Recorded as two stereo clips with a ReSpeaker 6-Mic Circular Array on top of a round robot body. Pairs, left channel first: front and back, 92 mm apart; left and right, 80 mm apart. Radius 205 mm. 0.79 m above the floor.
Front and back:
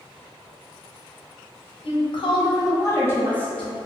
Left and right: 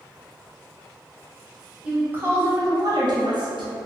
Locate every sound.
1.8 s a woman speaking: 15° right, 1.0 m; by 3.8 s 85° right, 1.2 m